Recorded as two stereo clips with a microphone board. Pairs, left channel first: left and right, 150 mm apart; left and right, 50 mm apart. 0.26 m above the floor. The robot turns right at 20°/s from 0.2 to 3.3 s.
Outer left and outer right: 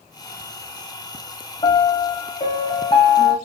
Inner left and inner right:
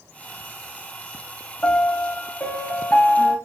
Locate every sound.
1.6 s a piano: 100° left, 0.7 m; by 3.4 s 135° left, 0.7 m